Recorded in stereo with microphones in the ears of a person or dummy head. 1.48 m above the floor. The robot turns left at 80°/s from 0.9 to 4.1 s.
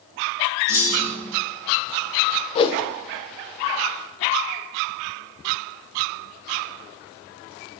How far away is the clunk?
About 2.5 m.